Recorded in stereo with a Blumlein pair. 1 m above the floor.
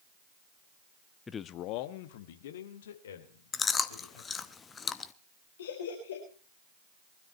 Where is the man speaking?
10° left, 0.8 m; by 4.5 s 65° left, 5 m.